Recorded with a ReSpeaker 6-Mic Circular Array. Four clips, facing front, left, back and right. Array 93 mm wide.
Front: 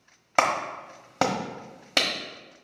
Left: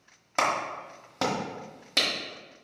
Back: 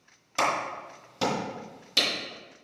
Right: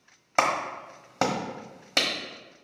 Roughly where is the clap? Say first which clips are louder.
Right 2 dB, front 3 dB; ahead.